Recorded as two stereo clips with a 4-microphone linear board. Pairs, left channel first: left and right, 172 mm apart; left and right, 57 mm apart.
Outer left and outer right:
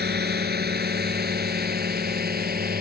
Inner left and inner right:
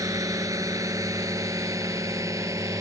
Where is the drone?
70° right (ahead or behind); by 2.8 s 60° right (ahead or behind).